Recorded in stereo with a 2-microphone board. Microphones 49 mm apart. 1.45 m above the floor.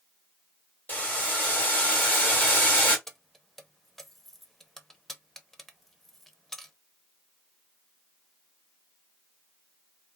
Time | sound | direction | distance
0.9 | boiling | 30° left (ahead or behind) | 1.6 m
3.1 | keys jangling | 10° left (ahead or behind) | 0.5 m